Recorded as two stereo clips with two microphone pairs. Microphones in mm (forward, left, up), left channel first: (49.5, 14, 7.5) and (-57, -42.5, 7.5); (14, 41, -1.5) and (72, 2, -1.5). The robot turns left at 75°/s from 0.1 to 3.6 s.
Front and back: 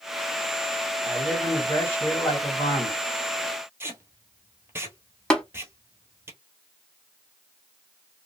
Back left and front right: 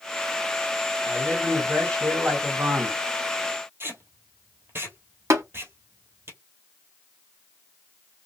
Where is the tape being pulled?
80° right, 0.9 m.